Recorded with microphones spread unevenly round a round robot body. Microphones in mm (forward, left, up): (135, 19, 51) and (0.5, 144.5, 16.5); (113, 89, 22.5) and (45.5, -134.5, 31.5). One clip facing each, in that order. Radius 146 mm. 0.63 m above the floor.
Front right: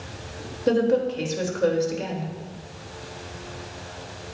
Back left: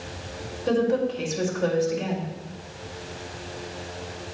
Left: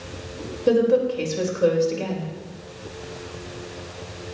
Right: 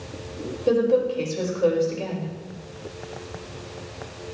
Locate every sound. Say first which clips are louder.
0.7 s a woman speaking: front right 2 dB, left 2 dB; straight ahead, 2.5 m